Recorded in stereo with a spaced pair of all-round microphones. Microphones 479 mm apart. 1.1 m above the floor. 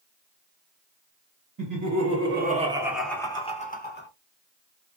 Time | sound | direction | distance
1.6 | laughter | 45° right (ahead or behind) | 0.9 m